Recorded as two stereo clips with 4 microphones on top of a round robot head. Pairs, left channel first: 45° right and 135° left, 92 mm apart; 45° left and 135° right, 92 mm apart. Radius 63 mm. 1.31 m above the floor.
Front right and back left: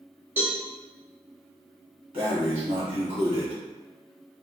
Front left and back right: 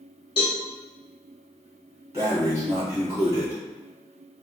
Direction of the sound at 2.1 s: 165° left.